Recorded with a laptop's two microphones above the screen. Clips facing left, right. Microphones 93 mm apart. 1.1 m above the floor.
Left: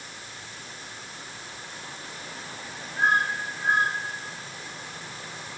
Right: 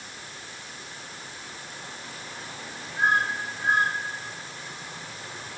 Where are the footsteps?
I don't hear footsteps.